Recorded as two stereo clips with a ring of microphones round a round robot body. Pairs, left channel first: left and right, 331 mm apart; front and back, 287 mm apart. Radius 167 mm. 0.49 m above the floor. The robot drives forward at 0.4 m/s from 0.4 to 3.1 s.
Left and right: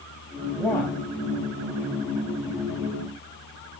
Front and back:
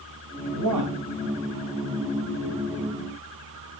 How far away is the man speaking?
About 2.5 m.